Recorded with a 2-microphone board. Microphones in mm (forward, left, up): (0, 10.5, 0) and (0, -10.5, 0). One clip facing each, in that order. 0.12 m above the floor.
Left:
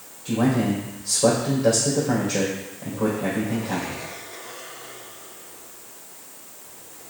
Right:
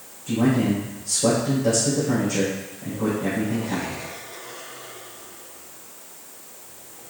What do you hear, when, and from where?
0.2 s a man speaking: 40° left (ahead or behind), 3.5 m